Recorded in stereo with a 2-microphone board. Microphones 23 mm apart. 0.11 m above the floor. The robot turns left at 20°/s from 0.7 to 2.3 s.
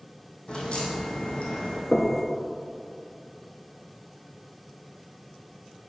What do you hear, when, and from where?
0.5 s a crack: 50° left (ahead or behind), 1.9 m; by 1.8 s 70° left (ahead or behind), 1.9 m
1.9 s knocking: 35° left (ahead or behind), 1.0 m